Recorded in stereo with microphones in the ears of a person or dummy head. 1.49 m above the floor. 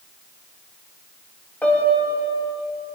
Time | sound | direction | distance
1.6 | a piano | 10° left (ahead or behind) | 1.4 m